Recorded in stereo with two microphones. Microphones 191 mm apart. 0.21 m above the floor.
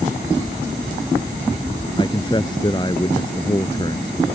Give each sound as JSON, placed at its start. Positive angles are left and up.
{"t": 2.0, "sound": "a man speaking", "side_deg": 25}